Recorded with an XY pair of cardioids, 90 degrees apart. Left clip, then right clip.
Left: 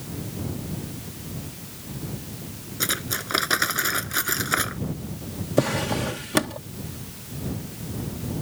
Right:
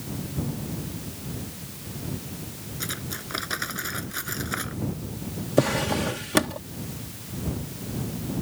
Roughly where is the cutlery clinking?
Ahead left.